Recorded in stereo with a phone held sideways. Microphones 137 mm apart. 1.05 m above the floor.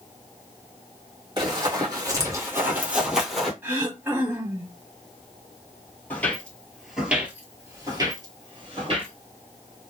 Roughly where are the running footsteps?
Right.